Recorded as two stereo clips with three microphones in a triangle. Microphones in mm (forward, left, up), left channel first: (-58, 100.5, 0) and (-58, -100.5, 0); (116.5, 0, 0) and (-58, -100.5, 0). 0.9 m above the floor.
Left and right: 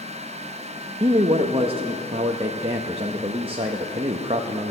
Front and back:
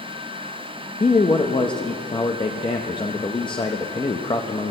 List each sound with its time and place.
1.0 s a man speaking: 35° right, 0.7 m